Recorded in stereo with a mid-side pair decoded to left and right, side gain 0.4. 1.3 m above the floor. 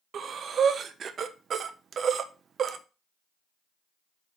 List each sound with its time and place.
0.1 s breathing: 60° right, 0.7 m